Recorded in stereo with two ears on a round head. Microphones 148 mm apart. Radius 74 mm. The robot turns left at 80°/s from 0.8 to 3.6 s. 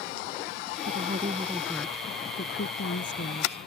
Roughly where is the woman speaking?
Right.